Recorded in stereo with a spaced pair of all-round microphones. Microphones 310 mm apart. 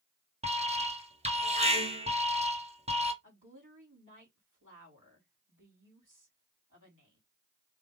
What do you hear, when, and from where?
0.4 s an alarm: 20° right (ahead or behind), 1.2 m
3.2 s a woman speaking: 80° right, 2.5 m